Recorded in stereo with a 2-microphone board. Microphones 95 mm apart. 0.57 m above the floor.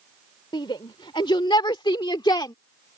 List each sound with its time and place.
0.5 s a shout: 60° left (ahead or behind); by 2.5 s 50° left (ahead or behind)